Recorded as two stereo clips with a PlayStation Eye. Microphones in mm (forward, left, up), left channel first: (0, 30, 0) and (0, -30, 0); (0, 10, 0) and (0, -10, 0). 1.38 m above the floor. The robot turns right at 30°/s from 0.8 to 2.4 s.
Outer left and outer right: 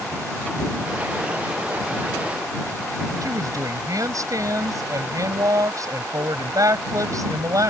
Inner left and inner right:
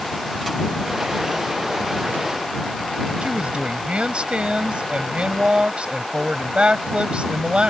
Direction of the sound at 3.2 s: 65° right (ahead or behind).